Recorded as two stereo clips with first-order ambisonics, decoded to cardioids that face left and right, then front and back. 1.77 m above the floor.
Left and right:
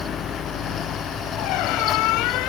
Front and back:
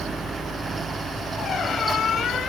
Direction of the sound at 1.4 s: 65° left.